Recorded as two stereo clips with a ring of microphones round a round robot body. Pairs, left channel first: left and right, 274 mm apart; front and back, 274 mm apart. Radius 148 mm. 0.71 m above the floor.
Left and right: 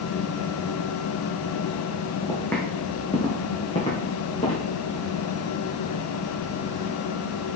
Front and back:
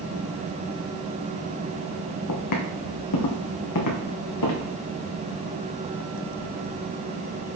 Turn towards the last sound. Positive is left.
turn(degrees=20)